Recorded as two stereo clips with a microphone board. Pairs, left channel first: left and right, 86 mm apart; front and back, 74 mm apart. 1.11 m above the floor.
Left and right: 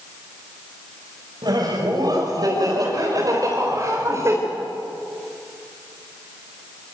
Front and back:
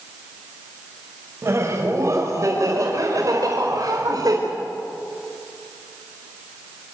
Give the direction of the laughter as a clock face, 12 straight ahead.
4 o'clock.